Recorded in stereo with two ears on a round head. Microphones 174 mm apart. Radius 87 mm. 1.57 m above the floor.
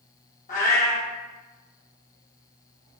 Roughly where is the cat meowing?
Left.